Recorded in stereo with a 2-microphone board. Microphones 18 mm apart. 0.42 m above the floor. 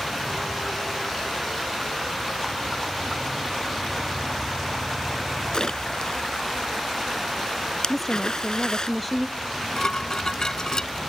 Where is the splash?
50° left (ahead or behind).